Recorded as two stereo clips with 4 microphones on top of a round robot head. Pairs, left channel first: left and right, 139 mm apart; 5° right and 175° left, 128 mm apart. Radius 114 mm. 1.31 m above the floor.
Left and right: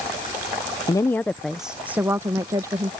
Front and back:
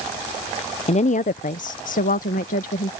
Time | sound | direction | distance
0.9 | a woman speaking | 25° left | ?